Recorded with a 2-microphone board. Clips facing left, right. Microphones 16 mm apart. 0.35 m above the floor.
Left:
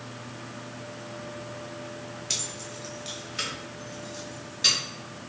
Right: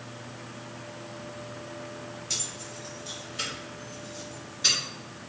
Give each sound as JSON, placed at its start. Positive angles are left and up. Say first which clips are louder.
{"t": 2.3, "sound": "keys jangling", "louder": "left 2 dB", "side_deg": 30, "distance_m": 0.8}